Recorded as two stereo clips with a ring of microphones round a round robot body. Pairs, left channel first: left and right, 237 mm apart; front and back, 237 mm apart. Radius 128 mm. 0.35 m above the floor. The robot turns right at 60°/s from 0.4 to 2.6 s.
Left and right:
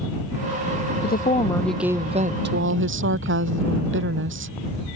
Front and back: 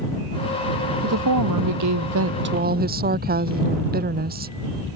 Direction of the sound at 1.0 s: 140° left.